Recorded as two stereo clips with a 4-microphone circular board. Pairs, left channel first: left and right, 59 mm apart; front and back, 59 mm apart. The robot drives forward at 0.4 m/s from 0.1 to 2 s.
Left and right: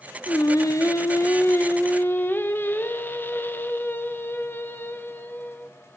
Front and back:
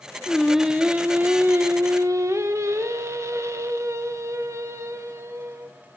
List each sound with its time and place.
0.3 s singing: 85° left, 0.5 m; by 5.8 s 145° left, 0.8 m